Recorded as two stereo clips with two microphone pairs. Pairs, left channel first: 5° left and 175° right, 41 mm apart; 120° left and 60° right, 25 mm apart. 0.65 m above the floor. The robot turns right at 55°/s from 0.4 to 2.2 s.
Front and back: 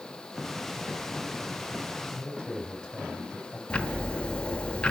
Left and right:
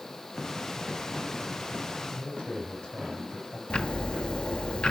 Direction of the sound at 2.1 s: 75° left.